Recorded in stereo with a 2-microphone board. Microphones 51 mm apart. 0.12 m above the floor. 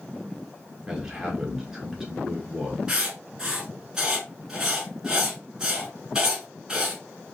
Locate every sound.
0.9 s a man speaking: 10° right (ahead or behind), 1.4 m
2.9 s writing: 10° right (ahead or behind), 1.1 m